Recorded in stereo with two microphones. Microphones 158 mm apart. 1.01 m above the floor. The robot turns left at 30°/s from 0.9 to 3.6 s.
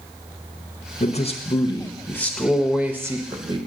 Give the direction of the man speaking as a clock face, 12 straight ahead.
10 o'clock.